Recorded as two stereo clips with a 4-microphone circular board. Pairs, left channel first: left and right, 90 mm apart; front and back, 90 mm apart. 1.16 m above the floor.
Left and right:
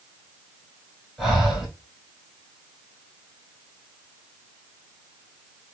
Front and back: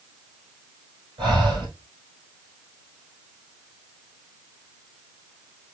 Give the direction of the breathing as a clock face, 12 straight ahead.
6 o'clock.